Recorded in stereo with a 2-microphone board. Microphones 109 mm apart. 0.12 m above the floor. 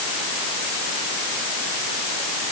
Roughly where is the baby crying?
I don't hear a baby crying.